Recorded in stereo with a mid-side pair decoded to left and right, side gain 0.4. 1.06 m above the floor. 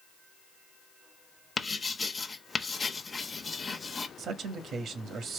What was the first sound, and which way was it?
Writing, 40° left.